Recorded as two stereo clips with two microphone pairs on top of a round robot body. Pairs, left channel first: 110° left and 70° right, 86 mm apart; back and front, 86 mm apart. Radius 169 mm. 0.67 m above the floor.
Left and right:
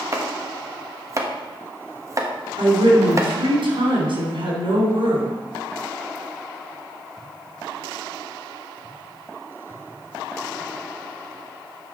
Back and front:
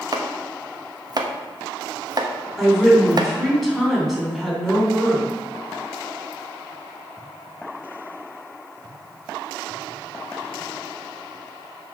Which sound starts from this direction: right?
A woman speaking, at 2.6 s.